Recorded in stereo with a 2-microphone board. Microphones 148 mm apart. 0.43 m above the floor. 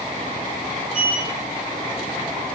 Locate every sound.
0.9 s a sliding door: 10° right (ahead or behind), 1.7 m